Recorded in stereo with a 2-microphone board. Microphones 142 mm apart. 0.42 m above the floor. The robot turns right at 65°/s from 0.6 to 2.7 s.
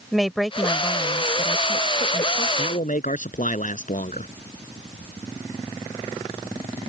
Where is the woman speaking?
Straight ahead; by 2.5 s 120° left.